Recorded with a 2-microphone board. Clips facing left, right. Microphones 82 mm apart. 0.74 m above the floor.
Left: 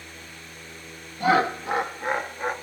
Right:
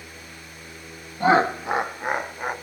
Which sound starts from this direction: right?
Laughter, at 1.2 s.